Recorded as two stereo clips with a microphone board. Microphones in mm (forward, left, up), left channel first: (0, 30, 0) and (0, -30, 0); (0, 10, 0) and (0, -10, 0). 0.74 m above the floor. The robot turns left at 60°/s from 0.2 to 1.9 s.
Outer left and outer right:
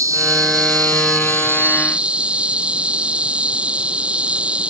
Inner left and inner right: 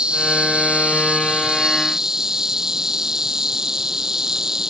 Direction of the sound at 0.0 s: 60° right.